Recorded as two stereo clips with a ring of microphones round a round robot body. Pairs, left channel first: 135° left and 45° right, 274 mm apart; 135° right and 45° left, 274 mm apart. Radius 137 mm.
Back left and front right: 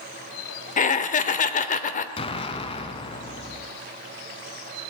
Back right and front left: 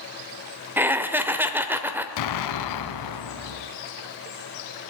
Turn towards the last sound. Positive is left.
turn(degrees=-155)